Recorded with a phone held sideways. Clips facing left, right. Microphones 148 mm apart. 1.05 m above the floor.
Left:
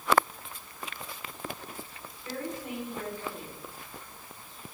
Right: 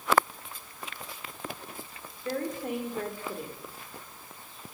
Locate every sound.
2.2 s a woman speaking: 55° right (ahead or behind), 3 m